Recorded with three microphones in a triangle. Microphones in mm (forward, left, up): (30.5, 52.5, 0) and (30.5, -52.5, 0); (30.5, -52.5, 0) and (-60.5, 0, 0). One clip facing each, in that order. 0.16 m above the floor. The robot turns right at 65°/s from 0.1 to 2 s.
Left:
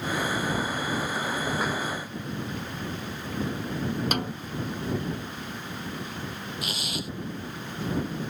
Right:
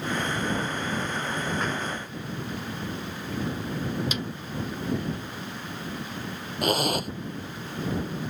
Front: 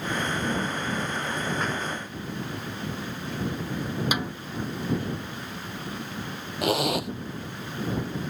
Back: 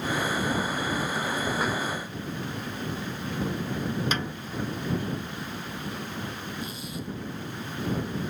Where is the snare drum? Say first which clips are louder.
Left 3 dB, front 1 dB; 50° left.